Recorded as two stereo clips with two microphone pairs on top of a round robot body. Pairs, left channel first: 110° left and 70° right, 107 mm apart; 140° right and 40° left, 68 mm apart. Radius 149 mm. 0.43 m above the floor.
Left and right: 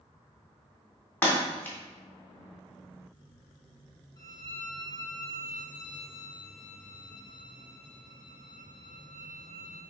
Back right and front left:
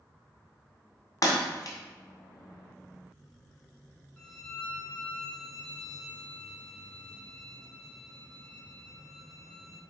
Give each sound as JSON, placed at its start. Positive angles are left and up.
{"t": 1.2, "sound": "breaking glass", "azimuth_deg": -175, "distance_m": 2.5}
{"t": 4.2, "sound": "a violin", "azimuth_deg": 150, "distance_m": 2.5}